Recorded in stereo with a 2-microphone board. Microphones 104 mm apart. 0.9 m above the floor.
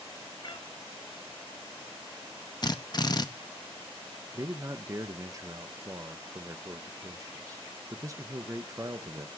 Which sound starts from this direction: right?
A man speaking, at 4.3 s.